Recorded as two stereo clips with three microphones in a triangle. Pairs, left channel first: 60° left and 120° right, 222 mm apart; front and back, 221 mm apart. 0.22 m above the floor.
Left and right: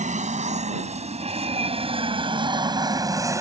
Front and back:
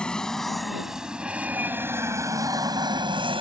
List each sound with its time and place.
0.0 s an aircraft: 85° right; by 3.4 s 175° right